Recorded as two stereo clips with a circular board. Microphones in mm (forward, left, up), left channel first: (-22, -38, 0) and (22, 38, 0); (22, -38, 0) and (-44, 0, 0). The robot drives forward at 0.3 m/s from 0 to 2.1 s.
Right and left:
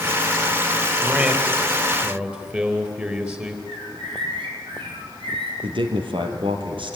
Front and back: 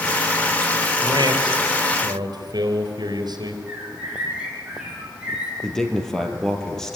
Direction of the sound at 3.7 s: 70° left.